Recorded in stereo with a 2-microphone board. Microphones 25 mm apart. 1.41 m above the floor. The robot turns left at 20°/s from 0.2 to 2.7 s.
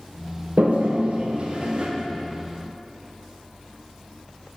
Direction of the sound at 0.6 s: 65° right (ahead or behind).